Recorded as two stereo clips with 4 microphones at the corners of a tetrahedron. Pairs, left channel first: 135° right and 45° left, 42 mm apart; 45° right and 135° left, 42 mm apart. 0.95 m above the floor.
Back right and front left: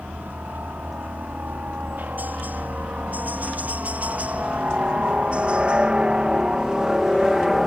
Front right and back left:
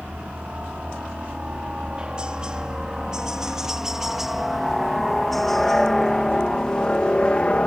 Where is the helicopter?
75° left; by 7.7 s 30° right.